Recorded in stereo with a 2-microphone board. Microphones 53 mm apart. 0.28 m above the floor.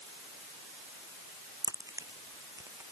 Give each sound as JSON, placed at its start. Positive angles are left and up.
{"t": 1.6, "sound": "a crack", "side_deg": -85}